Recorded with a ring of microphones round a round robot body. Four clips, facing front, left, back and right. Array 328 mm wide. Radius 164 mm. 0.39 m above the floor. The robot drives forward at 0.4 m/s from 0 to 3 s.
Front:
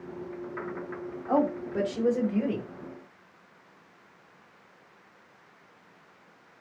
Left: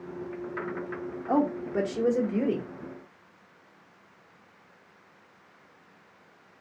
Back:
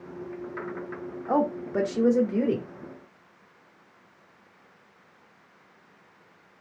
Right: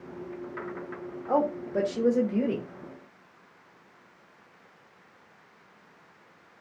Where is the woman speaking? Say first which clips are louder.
Even, back 1 dB; 170° left, 0.8 m; by 2.7 s 175° left, 1.1 m.